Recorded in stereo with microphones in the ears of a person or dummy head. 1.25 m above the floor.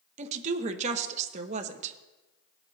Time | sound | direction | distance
0.2 | a woman speaking | 40° right (ahead or behind) | 0.9 m